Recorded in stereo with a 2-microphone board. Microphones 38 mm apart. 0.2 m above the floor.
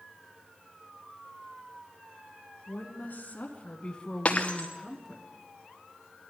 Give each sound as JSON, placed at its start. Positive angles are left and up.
{"t": 2.7, "sound": "a woman speaking", "side_deg": 60, "distance_m": 2.5}
{"t": 4.2, "sound": "breaking glass", "side_deg": 30, "distance_m": 1.7}